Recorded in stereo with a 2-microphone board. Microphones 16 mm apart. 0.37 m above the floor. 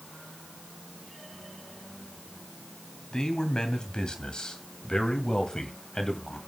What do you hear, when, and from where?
3.1 s a man speaking: 55° left (ahead or behind), 2.5 m; by 6.4 s 40° left (ahead or behind), 2 m